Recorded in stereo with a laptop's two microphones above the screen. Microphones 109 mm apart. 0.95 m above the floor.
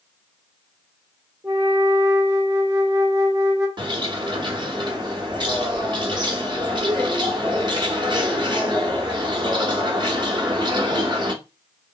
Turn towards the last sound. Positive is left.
turn(degrees=-45)  # may be behind; listen again after turning